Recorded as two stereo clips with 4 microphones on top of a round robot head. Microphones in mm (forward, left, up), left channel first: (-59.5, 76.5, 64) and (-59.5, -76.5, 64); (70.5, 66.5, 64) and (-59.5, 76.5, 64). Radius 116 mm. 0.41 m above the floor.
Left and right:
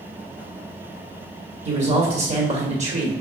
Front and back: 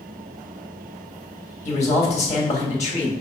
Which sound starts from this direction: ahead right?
A man speaking, at 1.6 s.